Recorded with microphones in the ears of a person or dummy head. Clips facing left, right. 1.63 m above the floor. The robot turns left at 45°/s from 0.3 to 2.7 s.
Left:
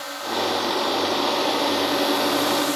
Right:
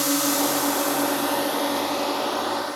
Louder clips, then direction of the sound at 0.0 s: Right 4 dB; 110° right.